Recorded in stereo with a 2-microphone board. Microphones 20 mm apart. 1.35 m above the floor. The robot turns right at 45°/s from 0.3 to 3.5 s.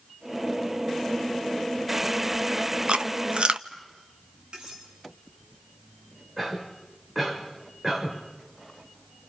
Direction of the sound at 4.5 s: 50° right (ahead or behind).